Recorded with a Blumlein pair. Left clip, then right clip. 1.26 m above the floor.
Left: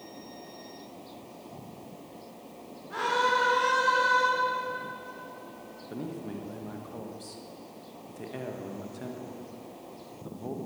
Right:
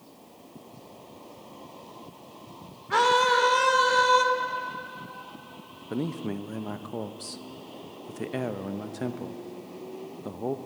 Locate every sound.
2.9 s a scream: 55° right, 3.5 m
5.9 s a man speaking: 25° right, 1.2 m